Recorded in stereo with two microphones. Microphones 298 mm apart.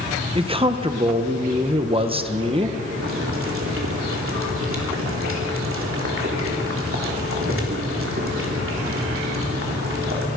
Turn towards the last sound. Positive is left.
turn(degrees=-45)  # may be behind; listen again after turning